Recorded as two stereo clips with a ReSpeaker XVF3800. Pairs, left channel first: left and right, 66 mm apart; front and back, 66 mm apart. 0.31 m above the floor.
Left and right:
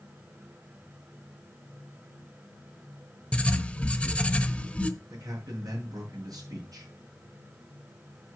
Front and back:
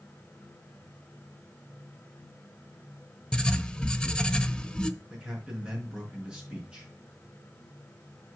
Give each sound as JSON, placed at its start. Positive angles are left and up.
{"t": 3.3, "sound": "writing", "azimuth_deg": 55, "distance_m": 0.8}
{"t": 5.1, "sound": "a man speaking", "azimuth_deg": -105, "distance_m": 4.5}